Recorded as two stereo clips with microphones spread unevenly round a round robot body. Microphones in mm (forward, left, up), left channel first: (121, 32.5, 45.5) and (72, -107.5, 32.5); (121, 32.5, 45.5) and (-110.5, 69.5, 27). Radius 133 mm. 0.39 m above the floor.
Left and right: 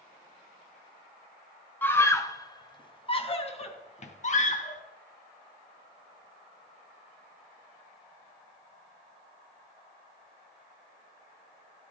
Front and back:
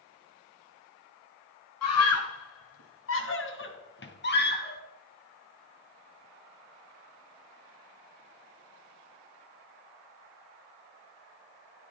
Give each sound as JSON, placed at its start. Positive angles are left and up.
{"t": 1.8, "sound": "a scream", "azimuth_deg": -5, "distance_m": 3.0}